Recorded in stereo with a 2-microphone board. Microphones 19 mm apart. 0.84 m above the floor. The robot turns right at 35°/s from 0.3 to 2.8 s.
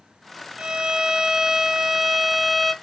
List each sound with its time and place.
0.6 s a violin: 70° right, 1.6 m; by 2.7 s 5° left, 1.6 m